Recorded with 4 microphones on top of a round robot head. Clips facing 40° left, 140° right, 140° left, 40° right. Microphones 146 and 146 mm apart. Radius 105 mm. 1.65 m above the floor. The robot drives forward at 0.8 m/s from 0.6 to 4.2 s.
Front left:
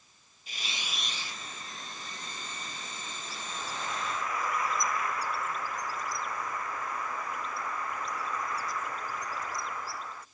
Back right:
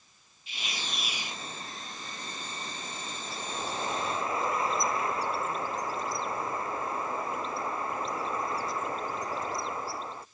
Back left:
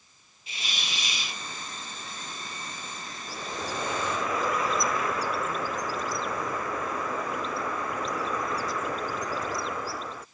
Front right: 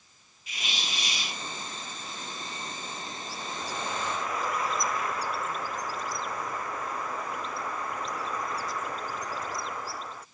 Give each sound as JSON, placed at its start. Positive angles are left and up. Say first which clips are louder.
{"t": 0.5, "sound": "a hiss", "louder": "back right 2 dB, front right 1 dB", "azimuth_deg": 85}
{"t": 3.3, "sound": "a bird", "louder": "back right 5 dB, back left 4 dB", "azimuth_deg": 150}